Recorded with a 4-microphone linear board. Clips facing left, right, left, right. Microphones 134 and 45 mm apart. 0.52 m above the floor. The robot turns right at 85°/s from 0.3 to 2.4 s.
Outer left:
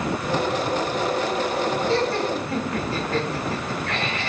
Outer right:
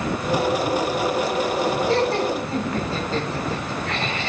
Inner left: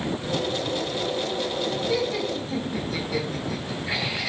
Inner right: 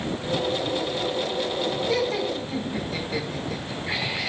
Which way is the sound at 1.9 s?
50° right (ahead or behind).